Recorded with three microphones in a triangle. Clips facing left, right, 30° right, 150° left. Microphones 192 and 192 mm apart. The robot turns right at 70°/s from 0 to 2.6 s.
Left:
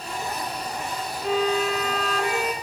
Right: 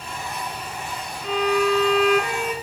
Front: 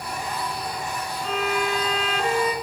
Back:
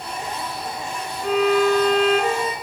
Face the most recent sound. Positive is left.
turn(degrees=-135)